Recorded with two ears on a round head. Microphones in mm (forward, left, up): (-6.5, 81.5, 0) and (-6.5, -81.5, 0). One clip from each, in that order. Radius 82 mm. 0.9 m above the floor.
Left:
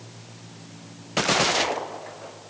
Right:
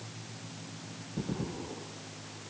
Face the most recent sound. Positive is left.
No sound to turn to.